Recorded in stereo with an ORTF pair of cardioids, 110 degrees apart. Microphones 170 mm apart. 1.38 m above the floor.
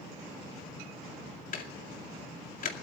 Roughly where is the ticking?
Ahead left.